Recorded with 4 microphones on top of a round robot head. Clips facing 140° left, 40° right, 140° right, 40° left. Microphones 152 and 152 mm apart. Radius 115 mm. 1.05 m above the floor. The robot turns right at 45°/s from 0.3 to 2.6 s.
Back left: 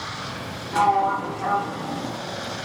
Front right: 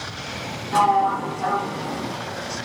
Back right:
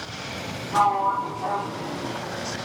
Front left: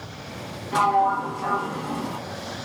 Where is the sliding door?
15° right, 2.0 m; by 2.2 s 50° left, 2.0 m.